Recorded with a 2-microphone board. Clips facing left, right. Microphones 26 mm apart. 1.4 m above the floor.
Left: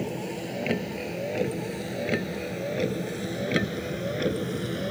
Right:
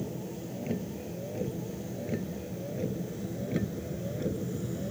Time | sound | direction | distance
0.0 | a vehicle | 85° left | ?